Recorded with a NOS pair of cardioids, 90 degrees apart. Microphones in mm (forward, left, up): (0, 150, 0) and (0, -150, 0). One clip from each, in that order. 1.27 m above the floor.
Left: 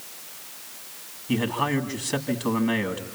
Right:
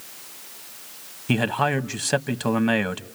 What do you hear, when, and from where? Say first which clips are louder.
1.3 s a man speaking: right 3 dB; 70° right, 1.5 m